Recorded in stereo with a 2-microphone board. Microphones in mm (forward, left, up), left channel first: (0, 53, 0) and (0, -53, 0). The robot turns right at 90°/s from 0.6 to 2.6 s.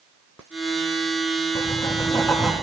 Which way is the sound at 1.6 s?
100° left.